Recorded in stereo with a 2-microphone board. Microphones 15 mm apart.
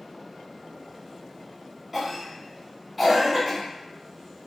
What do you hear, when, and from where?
1.9 s a cough: 5° right (ahead or behind), 1.4 m